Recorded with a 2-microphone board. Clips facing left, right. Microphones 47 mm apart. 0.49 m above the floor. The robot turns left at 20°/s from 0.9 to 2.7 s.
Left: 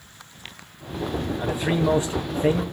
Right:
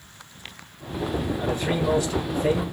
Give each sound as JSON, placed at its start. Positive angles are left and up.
{"t": 1.4, "sound": "a man speaking", "side_deg": 15, "distance_m": 3.0}